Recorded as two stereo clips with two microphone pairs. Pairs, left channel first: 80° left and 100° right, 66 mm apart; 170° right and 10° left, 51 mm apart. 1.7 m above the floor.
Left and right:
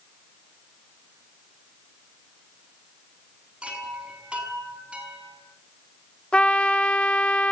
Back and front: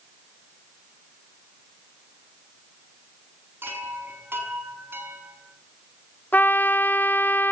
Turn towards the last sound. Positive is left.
turn(degrees=150)